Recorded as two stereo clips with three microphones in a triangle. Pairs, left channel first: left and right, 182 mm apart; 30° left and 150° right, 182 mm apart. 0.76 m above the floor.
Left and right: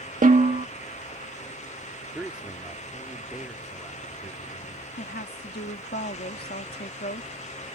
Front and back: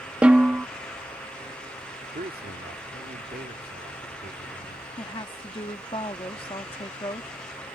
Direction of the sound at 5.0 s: 85° left.